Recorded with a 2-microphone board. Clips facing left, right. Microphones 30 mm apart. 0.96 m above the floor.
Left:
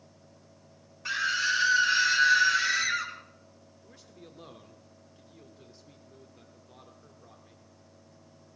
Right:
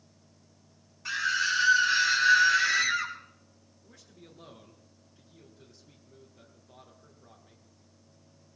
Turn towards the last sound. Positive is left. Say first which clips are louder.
# left 2 dB
turn(degrees=15)  # may be behind; listen again after turning